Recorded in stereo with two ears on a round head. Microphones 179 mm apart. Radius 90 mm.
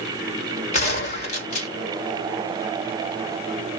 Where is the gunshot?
35° left (ahead or behind), 1.9 m.